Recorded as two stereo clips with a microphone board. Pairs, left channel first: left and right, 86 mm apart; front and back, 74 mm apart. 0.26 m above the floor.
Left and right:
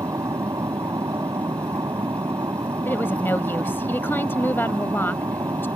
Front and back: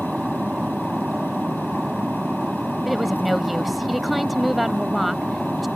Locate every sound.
0.0 s an aircraft: 100° right
2.9 s a woman speaking: 95° left